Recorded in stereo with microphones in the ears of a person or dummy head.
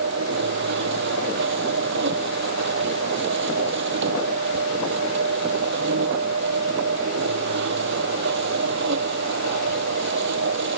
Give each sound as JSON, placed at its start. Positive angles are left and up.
{"t": 0.0, "sound": "a machine running", "side_deg": -70}